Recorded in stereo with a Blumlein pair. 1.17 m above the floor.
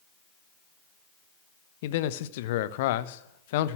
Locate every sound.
1.8 s a man speaking: 55° left, 1.0 m